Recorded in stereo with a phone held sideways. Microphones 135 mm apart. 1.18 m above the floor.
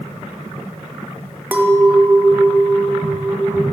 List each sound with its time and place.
1.5 s a clink: 15° right (ahead or behind), 0.5 m